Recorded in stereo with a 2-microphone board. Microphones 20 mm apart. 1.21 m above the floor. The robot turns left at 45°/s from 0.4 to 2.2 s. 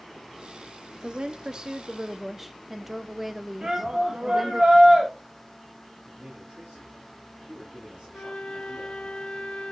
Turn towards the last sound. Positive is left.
turn(degrees=65)  # may be behind; listen again after turning